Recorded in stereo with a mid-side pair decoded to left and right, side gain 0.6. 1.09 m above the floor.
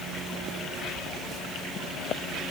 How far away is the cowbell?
I don't hear a cowbell.